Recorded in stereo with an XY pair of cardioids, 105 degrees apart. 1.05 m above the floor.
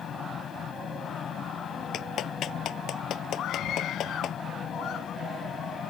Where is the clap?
65° left.